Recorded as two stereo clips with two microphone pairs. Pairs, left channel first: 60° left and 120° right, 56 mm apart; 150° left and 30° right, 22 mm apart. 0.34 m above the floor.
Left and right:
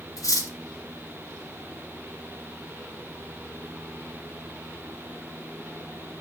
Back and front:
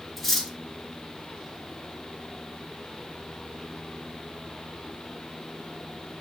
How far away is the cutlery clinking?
About 2.5 m.